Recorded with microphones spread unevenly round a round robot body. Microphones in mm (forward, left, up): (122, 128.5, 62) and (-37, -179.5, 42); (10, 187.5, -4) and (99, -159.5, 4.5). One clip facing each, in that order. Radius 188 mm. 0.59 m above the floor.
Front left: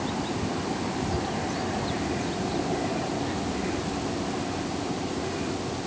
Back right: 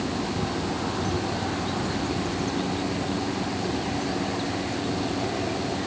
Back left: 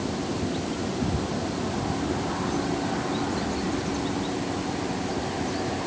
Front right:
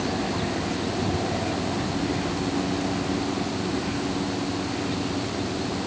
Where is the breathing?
No breathing in this recording.